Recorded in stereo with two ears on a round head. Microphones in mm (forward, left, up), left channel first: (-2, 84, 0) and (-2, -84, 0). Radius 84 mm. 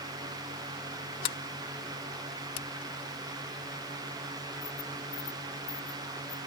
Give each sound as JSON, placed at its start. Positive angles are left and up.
{"t": 1.2, "sound": "a sliding door", "side_deg": 45}